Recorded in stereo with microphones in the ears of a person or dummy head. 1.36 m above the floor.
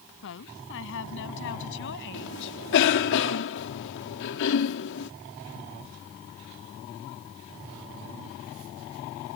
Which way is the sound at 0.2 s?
75° left (ahead or behind).